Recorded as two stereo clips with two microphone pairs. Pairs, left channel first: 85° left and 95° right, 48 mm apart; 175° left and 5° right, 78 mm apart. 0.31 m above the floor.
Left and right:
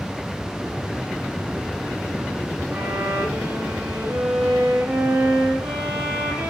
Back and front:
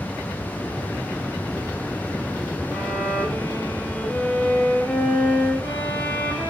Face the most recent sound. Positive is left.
turn(degrees=-110)